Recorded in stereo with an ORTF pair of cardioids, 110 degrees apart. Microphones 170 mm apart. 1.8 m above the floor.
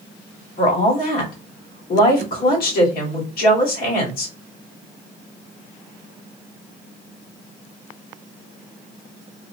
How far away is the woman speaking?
About 1.7 m.